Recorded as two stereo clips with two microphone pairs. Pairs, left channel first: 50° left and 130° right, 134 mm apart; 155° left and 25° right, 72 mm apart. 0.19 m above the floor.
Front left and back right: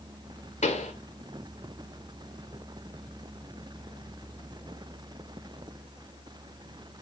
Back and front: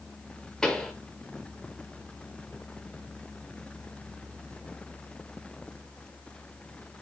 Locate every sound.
0.6 s a pop: 75° left, 0.7 m